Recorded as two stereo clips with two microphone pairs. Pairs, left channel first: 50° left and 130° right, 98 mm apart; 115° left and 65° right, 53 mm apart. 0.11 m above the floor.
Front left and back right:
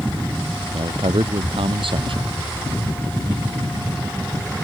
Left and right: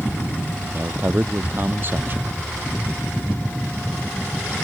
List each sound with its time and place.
0.7 s a man speaking: 110° right